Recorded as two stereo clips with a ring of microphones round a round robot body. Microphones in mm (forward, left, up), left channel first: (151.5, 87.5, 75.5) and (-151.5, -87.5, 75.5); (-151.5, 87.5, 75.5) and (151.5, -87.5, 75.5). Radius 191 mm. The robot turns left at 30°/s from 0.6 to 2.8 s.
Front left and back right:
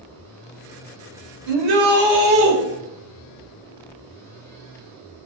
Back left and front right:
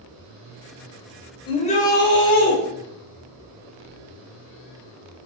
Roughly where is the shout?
Behind right.